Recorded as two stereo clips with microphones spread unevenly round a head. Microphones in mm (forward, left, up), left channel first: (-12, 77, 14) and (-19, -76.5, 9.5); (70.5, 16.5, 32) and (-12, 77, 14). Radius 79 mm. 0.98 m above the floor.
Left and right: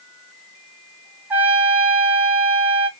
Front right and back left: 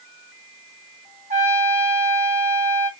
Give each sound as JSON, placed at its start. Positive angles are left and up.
{"t": 1.3, "sound": "a trumpet", "azimuth_deg": -175, "distance_m": 1.4}